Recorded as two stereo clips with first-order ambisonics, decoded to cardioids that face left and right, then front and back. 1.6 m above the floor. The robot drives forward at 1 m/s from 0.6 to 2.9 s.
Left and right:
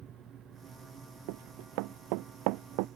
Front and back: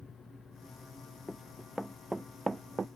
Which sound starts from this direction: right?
Running footsteps, at 1.3 s.